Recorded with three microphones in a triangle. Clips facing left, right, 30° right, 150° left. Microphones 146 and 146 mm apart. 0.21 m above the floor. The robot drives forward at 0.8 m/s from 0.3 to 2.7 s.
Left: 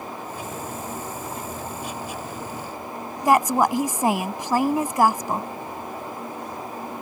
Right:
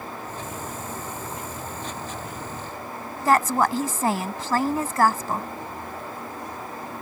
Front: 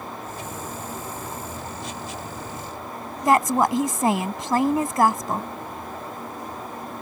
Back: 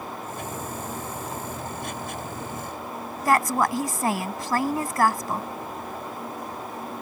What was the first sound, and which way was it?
A woman speaking, 25° left.